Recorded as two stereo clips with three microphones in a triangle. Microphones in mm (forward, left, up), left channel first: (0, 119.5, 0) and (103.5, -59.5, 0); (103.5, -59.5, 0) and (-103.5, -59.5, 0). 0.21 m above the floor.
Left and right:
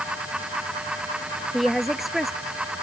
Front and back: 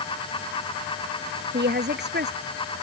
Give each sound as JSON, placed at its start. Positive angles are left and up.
{"t": 1.5, "sound": "a woman speaking", "azimuth_deg": -150}